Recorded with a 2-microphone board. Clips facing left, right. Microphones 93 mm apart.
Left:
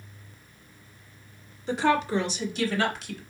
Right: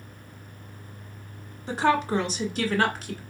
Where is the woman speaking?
40° right (ahead or behind), 1.5 m; by 3.2 s 45° right (ahead or behind), 1.8 m.